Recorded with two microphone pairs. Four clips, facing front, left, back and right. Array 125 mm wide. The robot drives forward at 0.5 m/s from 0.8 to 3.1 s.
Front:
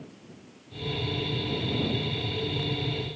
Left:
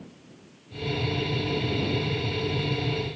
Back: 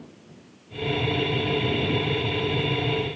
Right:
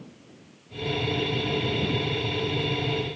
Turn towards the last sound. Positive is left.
No sound to turn to.